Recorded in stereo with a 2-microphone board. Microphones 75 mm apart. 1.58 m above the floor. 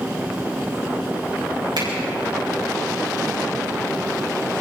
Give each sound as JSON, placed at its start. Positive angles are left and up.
{"t": 1.8, "sound": "a finger snap", "side_deg": -90, "distance_m": 7.5}